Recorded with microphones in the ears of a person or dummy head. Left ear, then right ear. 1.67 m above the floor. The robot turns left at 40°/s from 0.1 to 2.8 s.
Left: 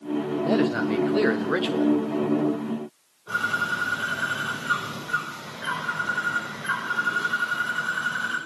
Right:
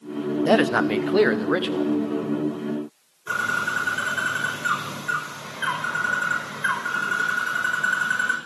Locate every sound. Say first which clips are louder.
0.5 s a man speaking: right 6 dB; 130° right, 0.9 m; by 1.9 s 170° left, 0.9 m
3.3 s a bird: right 1 dB; 65° right (ahead or behind), 6.5 m